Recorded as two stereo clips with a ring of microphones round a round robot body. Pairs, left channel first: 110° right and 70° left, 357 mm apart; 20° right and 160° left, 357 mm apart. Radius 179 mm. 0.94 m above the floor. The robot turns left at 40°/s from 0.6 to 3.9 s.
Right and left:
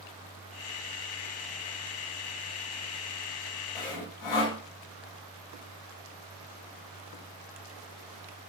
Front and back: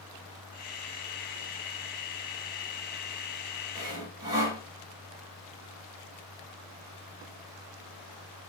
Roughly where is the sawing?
Behind right.